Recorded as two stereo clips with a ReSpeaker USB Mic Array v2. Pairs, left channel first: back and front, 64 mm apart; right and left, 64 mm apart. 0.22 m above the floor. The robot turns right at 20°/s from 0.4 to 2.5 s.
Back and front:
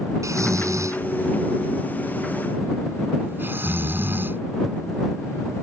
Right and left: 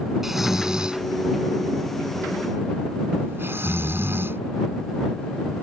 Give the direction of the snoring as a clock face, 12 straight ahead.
12 o'clock.